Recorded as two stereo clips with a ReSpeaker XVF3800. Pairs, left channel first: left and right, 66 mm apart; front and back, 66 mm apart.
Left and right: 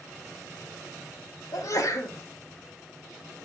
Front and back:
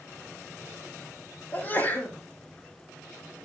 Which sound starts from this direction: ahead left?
A sneeze, at 1.5 s.